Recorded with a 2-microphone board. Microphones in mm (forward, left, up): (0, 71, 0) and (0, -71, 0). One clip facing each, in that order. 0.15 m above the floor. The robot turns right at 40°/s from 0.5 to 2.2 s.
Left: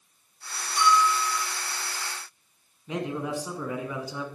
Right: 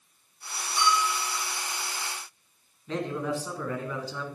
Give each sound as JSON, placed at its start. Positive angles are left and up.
{"t": 0.8, "sound": "a bell", "side_deg": 60, "distance_m": 5.5}
{"t": 2.9, "sound": "a man speaking", "side_deg": 15, "distance_m": 1.2}